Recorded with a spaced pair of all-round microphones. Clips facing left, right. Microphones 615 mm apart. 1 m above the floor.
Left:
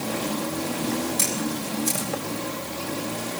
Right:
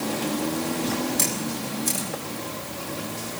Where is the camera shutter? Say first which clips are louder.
Left 1 dB; 15° left (ahead or behind), 6.5 m.